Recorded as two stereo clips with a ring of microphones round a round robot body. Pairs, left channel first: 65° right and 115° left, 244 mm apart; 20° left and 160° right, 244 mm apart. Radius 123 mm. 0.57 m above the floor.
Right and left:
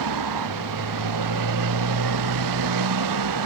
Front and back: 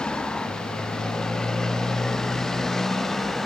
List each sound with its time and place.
0.0 s a motorcycle: 110° left